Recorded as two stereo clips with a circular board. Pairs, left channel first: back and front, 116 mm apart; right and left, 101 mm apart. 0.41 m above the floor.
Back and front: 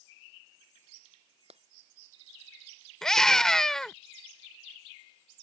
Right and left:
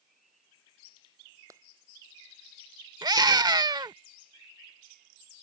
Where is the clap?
30° left.